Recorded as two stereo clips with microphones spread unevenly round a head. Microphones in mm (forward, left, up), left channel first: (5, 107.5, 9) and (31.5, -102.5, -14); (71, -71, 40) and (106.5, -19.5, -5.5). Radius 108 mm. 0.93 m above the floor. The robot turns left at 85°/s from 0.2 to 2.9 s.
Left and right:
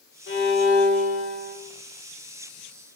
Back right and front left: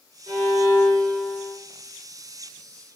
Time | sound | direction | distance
0.3 | a violin | 65° left | 1.3 m